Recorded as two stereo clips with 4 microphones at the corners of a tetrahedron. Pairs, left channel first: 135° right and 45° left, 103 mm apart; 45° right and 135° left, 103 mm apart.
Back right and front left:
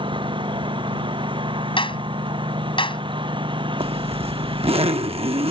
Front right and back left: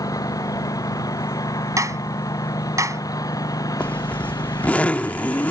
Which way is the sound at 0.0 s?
10° left.